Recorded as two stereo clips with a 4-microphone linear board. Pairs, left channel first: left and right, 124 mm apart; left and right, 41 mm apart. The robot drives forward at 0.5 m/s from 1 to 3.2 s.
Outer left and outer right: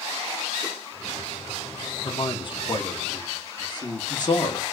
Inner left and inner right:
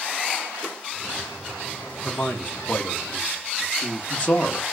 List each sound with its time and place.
2.0 s a man speaking: 40° left (ahead or behind), 0.9 m; by 4.6 s 35° left (ahead or behind), 1.0 m